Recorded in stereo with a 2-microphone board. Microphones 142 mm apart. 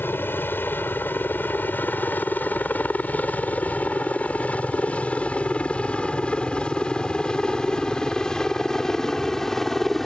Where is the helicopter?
15° left (ahead or behind); by 10.1 s 5° left (ahead or behind).